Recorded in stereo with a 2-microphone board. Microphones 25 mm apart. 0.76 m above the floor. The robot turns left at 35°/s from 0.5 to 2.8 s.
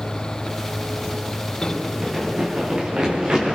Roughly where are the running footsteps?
Centre.